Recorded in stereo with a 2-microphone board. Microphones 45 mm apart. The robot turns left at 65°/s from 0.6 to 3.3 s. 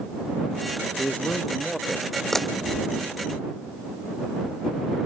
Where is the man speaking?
50° left; by 2.2 s 35° right.